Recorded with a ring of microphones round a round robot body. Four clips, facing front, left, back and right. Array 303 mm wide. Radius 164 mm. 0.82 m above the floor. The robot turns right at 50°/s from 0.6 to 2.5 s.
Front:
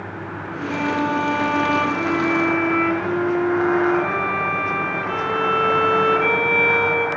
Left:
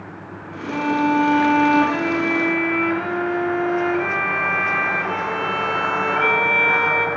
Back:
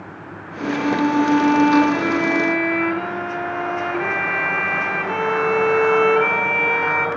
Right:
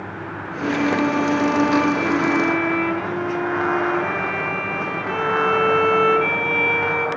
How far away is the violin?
About 2.0 m.